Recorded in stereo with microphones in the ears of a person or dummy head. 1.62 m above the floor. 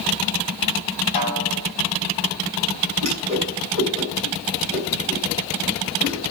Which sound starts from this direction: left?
A snare drum, at 1.1 s.